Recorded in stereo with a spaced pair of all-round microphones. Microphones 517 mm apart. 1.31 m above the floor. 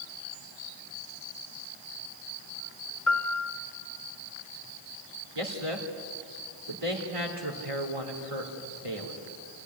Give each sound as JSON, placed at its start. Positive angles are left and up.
{"t": 3.1, "sound": "a piano", "side_deg": 75, "distance_m": 1.6}
{"t": 5.3, "sound": "a man speaking", "side_deg": -80, "distance_m": 3.0}